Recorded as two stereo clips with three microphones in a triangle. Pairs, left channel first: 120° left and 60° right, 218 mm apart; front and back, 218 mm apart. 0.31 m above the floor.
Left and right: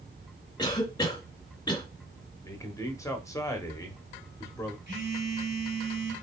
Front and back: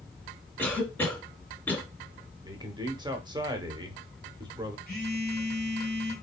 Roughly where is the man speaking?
Behind.